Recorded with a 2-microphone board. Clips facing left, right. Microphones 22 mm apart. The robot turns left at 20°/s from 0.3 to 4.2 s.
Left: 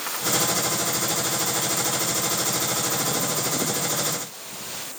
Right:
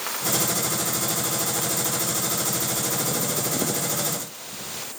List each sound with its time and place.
Only background noise.